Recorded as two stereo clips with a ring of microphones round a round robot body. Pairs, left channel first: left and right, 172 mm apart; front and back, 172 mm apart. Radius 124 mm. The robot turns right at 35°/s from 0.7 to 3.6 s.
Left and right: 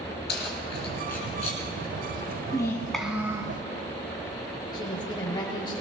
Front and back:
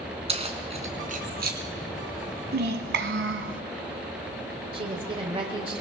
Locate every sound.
0.3 s keys jangling: 125° left, 2 m; by 1.6 s 160° left, 2 m
2.5 s a child speaking: 165° left, 1.6 m; by 3.6 s 160° right, 1.6 m
4.7 s a woman speaking: 140° left, 1.2 m